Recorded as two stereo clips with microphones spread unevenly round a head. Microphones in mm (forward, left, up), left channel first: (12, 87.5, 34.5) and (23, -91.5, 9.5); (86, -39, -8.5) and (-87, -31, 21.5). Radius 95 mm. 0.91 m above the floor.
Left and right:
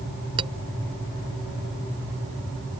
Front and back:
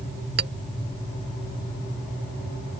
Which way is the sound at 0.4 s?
155° right.